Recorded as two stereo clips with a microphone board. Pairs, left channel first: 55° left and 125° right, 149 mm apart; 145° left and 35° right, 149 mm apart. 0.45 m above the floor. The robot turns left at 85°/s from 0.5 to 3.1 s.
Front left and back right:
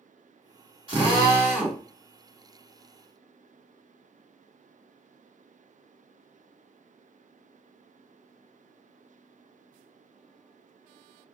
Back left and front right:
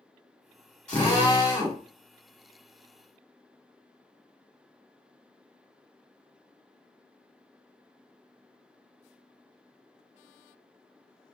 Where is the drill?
135° right, 1.6 m; by 1.8 s 145° left, 1.6 m.